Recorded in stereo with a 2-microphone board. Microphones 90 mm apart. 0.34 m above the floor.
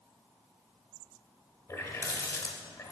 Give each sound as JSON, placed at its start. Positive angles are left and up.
{"t": 1.7, "sound": "a running tap", "side_deg": 35, "distance_m": 0.8}